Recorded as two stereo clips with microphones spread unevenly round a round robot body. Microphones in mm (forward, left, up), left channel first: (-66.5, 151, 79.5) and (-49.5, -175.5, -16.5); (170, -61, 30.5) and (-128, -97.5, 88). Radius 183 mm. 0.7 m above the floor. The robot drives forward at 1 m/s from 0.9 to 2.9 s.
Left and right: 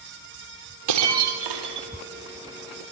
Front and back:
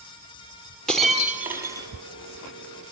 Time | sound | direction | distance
0.9 | breaking glass | 80° right | 4 m